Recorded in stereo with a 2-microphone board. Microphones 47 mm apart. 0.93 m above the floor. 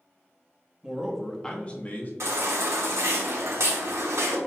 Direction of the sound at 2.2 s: 80° right.